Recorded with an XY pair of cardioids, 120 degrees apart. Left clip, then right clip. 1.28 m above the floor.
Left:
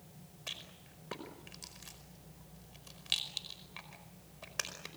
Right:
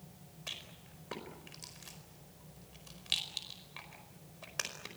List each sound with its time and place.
0.5 s a rattle: 5° left, 4.5 m